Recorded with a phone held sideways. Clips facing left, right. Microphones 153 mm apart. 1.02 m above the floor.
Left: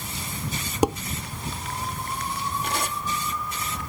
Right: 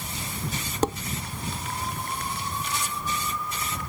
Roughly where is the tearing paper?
Left.